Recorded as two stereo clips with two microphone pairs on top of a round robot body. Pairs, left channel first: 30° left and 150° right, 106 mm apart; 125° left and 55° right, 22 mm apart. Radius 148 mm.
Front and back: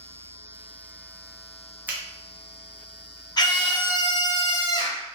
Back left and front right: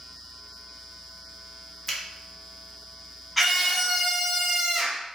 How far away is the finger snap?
About 1.0 m.